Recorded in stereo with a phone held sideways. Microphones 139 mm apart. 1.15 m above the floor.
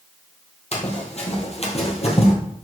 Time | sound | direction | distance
0.7 | running footsteps | 50° left (ahead or behind) | 2.5 m